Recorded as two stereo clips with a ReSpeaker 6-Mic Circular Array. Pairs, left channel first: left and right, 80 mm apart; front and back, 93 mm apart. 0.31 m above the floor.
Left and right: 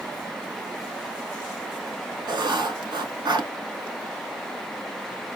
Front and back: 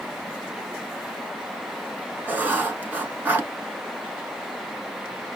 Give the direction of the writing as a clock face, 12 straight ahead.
4 o'clock.